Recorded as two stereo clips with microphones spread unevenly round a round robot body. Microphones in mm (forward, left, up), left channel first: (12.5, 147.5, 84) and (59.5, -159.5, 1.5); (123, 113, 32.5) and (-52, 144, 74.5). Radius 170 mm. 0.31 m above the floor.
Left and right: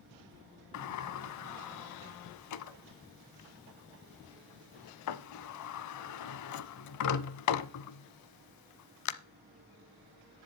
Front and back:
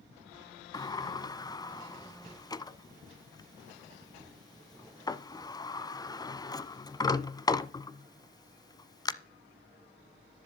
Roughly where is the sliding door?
Ahead left.